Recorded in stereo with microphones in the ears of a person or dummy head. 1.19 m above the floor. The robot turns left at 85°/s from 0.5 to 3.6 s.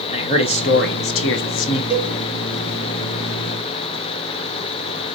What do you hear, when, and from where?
0.1 s a man speaking: 140° left, 0.9 m; by 1.8 s 30° left, 0.9 m
1.9 s a cowbell: 40° right (ahead or behind), 2 m; by 2.1 s 60° right (ahead or behind), 2 m